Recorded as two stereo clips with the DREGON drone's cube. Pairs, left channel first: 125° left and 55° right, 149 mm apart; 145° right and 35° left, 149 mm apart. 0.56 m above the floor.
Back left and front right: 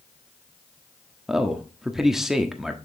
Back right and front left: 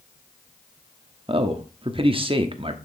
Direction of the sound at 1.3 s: 30° left.